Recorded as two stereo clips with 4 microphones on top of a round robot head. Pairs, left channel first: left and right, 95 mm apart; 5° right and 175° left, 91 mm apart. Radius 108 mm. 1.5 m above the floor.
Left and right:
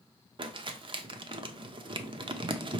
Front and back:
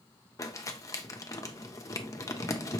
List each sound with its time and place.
0.4 s crumpling: 60° right, 0.5 m